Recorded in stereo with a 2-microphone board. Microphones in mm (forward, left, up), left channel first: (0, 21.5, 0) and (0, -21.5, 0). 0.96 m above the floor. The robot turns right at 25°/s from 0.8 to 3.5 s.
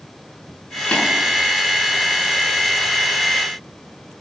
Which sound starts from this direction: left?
Tapping, at 0.9 s.